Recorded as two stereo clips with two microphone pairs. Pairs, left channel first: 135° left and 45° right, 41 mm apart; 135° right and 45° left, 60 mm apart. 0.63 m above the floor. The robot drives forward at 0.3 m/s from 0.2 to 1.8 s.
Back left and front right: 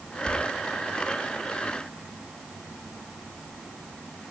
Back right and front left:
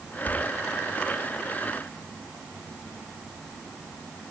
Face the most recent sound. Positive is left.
turn(degrees=-95)